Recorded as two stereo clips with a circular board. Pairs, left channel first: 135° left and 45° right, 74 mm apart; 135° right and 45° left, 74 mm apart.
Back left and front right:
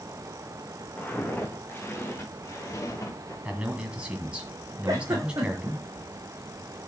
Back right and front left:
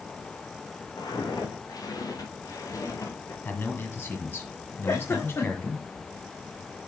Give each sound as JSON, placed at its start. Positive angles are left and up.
{"t": 1.0, "sound": "footsteps", "azimuth_deg": -155, "distance_m": 3.0}
{"t": 3.5, "sound": "a man speaking", "azimuth_deg": -110, "distance_m": 1.9}
{"t": 4.9, "sound": "a giggle", "azimuth_deg": -85, "distance_m": 3.5}